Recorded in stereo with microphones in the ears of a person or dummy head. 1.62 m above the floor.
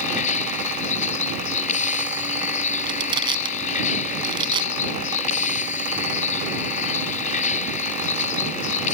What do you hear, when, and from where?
0.0 s a vehicle: 40° left (ahead or behind)
2.9 s crushing: 20° right (ahead or behind)